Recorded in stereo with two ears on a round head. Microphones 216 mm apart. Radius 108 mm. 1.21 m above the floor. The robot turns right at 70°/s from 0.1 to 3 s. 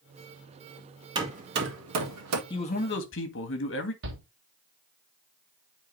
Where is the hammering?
20° right (ahead or behind), 1.9 m; by 2.4 s 75° right (ahead or behind), 1.9 m.